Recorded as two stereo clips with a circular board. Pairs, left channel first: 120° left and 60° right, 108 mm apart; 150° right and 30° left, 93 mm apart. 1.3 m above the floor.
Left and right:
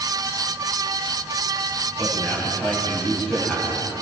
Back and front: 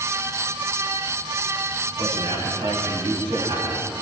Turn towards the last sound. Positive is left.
turn(degrees=35)